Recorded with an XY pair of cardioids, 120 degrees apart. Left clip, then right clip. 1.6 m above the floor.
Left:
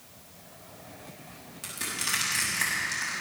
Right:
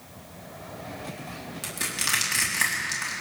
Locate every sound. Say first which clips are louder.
1.6 s crushing: right 3 dB; 25° right, 4.5 m